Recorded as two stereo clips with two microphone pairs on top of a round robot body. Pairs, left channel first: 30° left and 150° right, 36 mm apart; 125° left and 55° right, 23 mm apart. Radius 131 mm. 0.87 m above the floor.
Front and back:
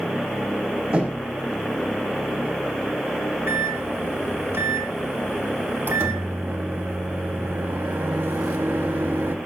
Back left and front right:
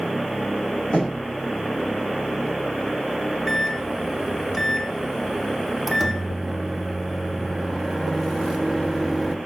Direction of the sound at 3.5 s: 145° right.